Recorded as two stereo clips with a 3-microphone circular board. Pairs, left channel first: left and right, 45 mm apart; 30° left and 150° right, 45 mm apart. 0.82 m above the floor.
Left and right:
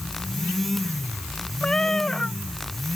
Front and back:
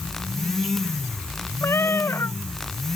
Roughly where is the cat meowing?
Ahead.